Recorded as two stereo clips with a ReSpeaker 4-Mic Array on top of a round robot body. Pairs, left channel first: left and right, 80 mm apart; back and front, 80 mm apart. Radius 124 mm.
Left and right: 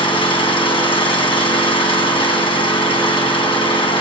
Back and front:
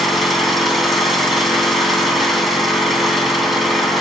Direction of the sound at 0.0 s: 90° left.